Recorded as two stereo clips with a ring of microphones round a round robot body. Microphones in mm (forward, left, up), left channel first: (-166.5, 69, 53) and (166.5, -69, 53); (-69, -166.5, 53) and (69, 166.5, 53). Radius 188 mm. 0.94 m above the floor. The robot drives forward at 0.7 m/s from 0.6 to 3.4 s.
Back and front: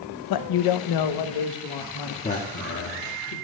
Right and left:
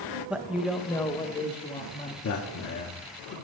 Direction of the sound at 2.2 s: 140° right.